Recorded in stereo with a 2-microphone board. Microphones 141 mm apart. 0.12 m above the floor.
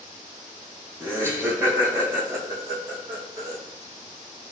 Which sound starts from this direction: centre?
Laughter, at 1.0 s.